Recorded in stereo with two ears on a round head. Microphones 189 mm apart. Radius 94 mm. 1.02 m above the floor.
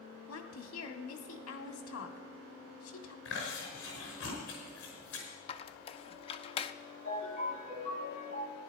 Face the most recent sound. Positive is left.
turn(degrees=40)  # may be behind; listen again after turning